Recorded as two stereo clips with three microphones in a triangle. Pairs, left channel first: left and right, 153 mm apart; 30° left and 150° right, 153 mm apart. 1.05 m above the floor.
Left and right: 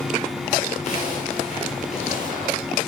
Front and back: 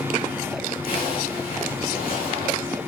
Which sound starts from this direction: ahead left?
A zipper, at 0.8 s.